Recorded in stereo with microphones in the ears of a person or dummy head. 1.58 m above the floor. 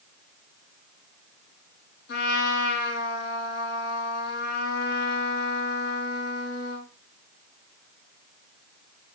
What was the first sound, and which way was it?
A trumpet, 65° left (ahead or behind).